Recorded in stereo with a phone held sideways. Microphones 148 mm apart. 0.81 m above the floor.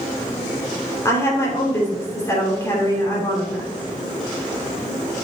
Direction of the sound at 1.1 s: 20° left (ahead or behind).